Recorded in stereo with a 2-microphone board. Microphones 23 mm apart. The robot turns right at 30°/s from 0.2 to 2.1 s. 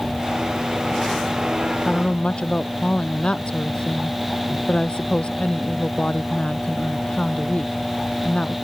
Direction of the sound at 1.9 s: 40° left (ahead or behind).